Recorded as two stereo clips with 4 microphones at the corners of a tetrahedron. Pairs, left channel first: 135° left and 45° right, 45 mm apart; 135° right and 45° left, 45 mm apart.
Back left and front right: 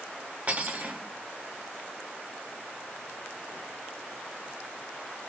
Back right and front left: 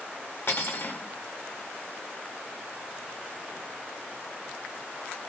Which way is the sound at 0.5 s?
105° right.